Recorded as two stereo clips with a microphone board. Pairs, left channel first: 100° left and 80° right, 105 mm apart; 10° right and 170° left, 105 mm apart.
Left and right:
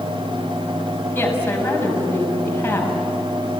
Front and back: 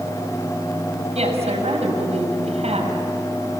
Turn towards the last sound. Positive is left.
turn(degrees=170)